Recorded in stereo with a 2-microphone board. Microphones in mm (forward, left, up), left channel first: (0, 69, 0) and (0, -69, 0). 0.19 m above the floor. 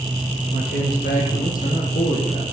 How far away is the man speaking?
About 6.5 m.